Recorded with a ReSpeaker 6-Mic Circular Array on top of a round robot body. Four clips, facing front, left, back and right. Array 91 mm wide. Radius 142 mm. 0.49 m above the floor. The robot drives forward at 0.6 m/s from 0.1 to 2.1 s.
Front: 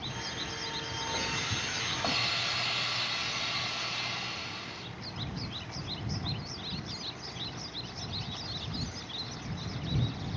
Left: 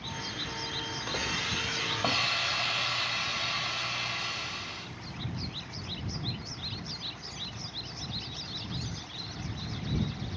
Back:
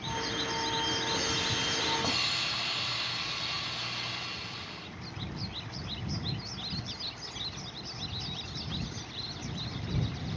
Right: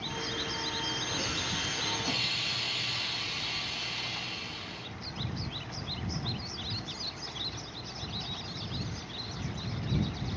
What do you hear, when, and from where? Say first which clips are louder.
1.1 s a hiss: left 1 dB, back 2 dB; 85° left, 4 m; by 4.8 s 95° left, 4 m